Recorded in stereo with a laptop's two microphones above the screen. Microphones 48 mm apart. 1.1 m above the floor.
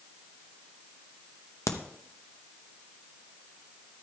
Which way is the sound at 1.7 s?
75° left (ahead or behind).